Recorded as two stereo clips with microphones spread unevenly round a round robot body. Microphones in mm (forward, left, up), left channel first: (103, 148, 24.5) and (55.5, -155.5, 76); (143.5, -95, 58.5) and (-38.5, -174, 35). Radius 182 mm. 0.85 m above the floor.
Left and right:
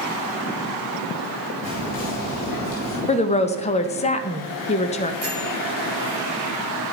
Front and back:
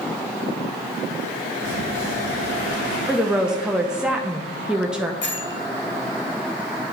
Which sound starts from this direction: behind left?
A woman speaking, at 3.1 s.